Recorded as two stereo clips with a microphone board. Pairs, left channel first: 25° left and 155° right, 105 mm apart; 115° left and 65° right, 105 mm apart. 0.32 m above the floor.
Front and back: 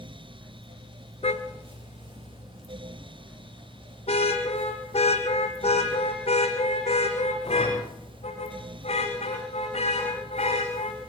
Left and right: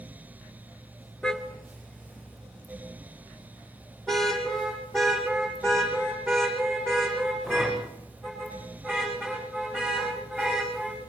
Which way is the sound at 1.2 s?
30° left.